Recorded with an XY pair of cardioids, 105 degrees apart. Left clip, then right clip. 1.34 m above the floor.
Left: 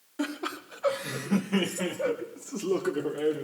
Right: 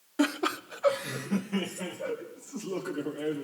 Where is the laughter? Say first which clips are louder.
Right 5 dB; 45° right, 0.9 m; by 3.4 s 75° left, 2 m.